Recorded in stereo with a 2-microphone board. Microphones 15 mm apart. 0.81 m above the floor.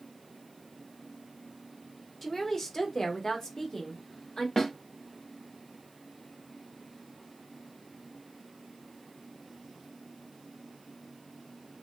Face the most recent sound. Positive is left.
turn(degrees=45)  # may be behind; listen again after turning